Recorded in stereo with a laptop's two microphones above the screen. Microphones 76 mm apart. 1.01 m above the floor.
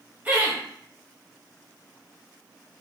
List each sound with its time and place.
0.2 s laughter: 20° right (ahead or behind), 1.3 m